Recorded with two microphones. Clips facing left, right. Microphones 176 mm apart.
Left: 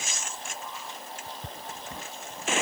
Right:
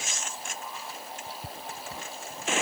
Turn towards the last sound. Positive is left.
No sound to turn to.